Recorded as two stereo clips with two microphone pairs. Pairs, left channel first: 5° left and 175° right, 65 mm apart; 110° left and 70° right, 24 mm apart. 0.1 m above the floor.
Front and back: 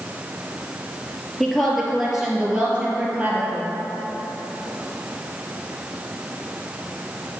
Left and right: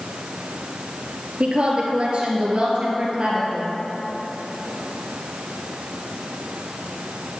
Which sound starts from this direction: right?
A woman speaking, at 1.4 s.